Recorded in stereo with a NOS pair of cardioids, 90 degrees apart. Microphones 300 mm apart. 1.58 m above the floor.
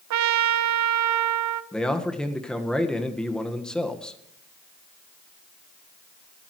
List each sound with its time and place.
0.1 s a trumpet: 70° right, 0.9 m
1.7 s a man speaking: 5° left, 1.7 m